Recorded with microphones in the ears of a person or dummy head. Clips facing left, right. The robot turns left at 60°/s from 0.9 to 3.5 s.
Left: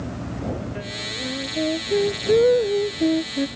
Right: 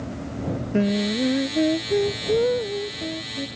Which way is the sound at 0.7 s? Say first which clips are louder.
Right 12 dB; 125° right.